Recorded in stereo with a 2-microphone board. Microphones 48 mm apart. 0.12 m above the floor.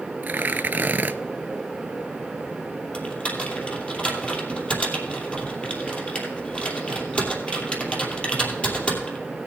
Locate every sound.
0.2 s tearing paper: 40° right (ahead or behind), 0.5 m
2.9 s typing on a keyboard: 25° left (ahead or behind), 2.5 m